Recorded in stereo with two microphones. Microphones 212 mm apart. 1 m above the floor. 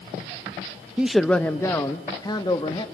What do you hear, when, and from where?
1.0 s a man speaking: 5° right (ahead or behind), 0.6 m; by 2.9 s 25° left (ahead or behind), 1.6 m